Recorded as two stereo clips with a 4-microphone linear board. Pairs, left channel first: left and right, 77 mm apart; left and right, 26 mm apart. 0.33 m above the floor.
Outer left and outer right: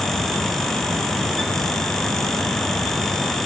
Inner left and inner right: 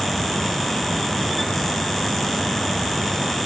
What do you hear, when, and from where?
Only background noise.